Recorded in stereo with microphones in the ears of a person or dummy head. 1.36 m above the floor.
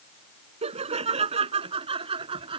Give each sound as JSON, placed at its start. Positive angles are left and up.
{"t": 0.6, "sound": "laughter", "side_deg": -30}